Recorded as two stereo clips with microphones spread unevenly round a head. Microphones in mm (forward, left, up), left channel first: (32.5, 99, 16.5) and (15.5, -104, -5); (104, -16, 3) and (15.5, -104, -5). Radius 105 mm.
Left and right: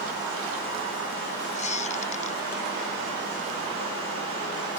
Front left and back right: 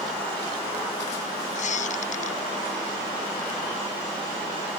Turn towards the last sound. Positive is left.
turn(degrees=30)